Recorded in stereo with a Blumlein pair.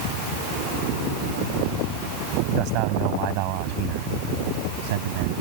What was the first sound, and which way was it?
A man speaking, 40° right.